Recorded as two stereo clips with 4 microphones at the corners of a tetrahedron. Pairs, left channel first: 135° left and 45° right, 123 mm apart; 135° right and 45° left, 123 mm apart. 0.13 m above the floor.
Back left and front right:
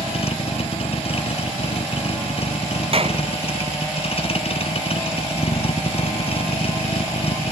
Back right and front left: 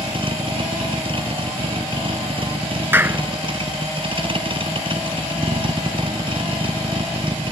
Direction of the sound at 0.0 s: 95° left.